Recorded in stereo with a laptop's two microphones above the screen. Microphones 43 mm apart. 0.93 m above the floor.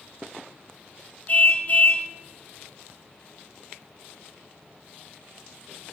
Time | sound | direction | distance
1.3 | a car horn | 40° left (ahead or behind) | 2 m